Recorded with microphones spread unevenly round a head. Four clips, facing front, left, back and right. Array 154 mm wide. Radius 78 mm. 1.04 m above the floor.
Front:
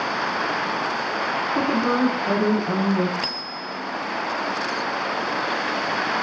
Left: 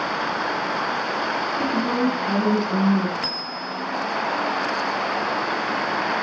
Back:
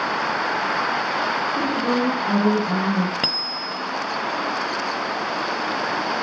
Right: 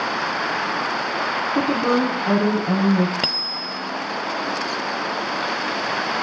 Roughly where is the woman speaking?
Ahead right.